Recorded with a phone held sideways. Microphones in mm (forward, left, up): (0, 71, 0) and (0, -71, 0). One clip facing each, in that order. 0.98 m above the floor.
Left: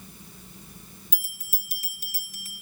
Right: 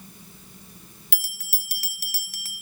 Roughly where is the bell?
Right.